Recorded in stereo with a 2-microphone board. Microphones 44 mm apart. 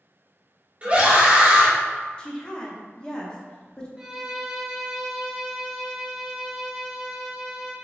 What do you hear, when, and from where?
0.8 s a scream: 30° right (ahead or behind), 1.0 m
2.2 s a woman speaking: 20° left (ahead or behind), 0.7 m
4.0 s a violin: 10° right (ahead or behind), 0.6 m